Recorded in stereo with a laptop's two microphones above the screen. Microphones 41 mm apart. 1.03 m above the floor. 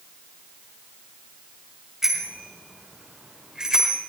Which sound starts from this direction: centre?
A bicycle bell, at 2.0 s.